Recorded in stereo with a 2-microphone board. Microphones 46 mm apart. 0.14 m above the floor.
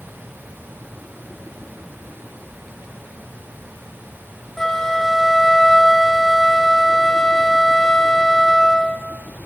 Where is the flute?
15° left (ahead or behind), 0.9 m.